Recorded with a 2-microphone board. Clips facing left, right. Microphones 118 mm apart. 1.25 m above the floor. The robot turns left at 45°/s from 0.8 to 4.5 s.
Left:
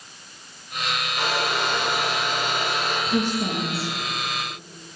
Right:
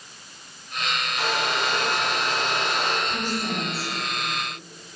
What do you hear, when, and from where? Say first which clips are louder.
1.2 s a hair dryer: left 1 dB; 45° left, 2.5 m; by 3.0 s 35° right, 2.5 m
3.1 s a woman speaking: left 4 dB; 85° left, 2 m; by 3.9 s 50° left, 2 m